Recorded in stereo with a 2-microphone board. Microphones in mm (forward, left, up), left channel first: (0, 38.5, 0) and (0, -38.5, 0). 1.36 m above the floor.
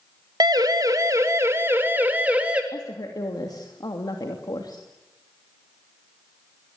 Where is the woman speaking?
60° left (ahead or behind), 2.5 m.